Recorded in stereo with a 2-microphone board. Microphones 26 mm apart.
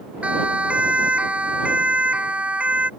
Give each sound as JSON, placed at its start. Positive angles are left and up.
{"t": 0.2, "sound": "a siren", "side_deg": -65}